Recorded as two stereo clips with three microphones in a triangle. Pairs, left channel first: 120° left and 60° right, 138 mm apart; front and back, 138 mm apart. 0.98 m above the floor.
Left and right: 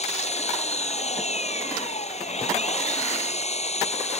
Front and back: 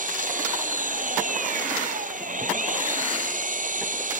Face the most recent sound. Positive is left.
turn(degrees=160)